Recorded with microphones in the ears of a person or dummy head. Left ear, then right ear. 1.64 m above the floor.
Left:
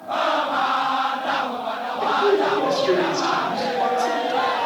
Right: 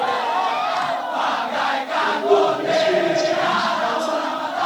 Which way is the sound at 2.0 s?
45° left (ahead or behind).